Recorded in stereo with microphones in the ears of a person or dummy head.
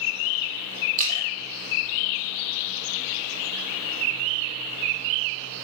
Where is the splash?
45° right (ahead or behind), 2.5 m.